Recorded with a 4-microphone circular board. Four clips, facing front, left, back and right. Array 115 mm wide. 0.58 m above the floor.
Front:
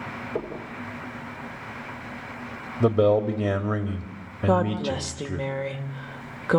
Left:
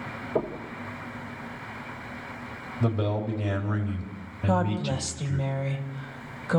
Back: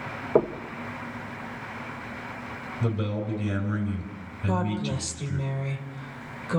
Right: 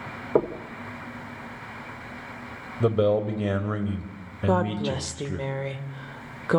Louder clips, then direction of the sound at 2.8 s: Right 7 dB, front 11 dB; 25° right.